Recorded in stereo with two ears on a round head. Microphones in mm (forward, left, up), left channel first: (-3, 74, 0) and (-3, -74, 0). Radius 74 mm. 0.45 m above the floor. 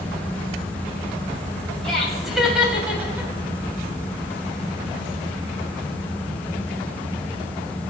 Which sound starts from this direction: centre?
Laughter, at 1.8 s.